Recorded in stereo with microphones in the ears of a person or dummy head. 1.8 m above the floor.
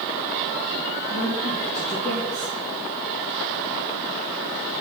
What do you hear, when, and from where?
1.1 s a woman speaking: 40° left (ahead or behind), 3 m